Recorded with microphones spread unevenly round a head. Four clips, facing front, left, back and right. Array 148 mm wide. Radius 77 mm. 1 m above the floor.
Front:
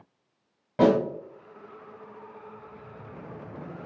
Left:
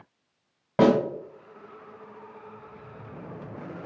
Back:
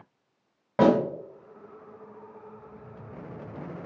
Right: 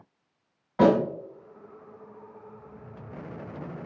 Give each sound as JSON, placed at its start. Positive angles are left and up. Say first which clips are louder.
{"t": 0.8, "sound": "a snare drum", "louder": "even, even", "azimuth_deg": 110, "distance_m": 1.6}